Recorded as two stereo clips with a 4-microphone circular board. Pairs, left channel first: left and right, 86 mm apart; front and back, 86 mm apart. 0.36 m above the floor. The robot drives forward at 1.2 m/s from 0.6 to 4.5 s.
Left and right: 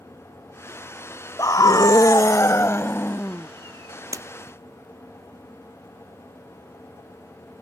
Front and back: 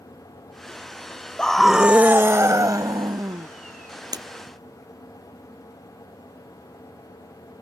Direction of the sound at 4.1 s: 140° right.